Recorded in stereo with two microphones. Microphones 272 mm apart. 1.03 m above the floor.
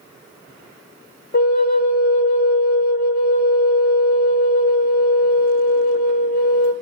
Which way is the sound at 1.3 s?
35° left (ahead or behind).